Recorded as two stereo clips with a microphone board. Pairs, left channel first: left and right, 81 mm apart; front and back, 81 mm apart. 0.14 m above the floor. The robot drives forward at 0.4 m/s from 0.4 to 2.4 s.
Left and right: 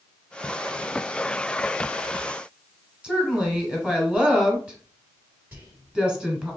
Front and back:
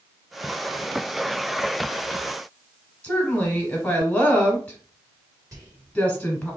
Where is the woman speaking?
30° right, 1.1 m.